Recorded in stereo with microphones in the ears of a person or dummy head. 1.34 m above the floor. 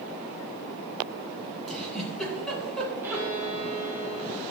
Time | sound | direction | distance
1.7 | a giggle | centre (ahead or behind) | 3.5 m
3.0 | a violin | 15° right (ahead or behind) | 2.5 m